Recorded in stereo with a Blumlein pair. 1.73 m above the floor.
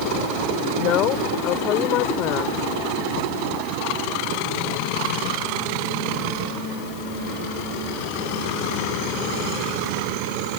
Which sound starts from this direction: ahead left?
A woman speaking, at 0.8 s.